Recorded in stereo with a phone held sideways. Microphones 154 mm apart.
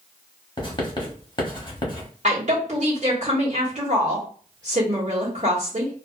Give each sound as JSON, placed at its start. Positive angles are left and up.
{"t": 0.6, "sound": "writing", "side_deg": 30, "distance_m": 1.0}
{"t": 2.2, "sound": "a woman speaking", "side_deg": -45, "distance_m": 1.3}